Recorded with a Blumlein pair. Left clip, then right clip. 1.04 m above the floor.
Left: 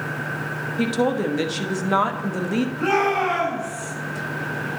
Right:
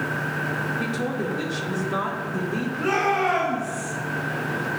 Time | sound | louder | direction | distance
0.8 | a woman speaking | left 5 dB | 50° left | 1.0 m
2.8 | a shout | left 1 dB | 50° left | 4 m